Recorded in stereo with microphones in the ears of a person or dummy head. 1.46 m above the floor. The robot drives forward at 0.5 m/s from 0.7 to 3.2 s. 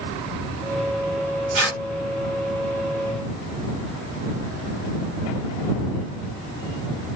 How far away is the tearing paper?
About 3 m.